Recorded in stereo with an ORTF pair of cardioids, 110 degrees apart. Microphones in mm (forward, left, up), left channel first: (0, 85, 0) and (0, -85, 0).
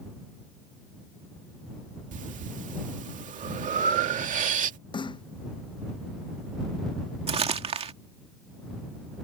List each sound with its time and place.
2.1 s breathing: 50° right
4.9 s a snare drum: 25° left
7.3 s crumpling: 35° right